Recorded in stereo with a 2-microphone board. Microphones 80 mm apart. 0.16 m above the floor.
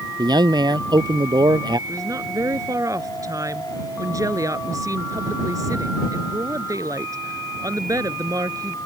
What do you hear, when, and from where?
0.2 s a man speaking: 65° right (ahead or behind)
1.9 s a woman speaking: 45° right (ahead or behind)